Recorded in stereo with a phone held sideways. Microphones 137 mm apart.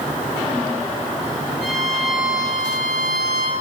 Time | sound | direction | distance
1.6 | a violin | 5° left (ahead or behind) | 1.5 m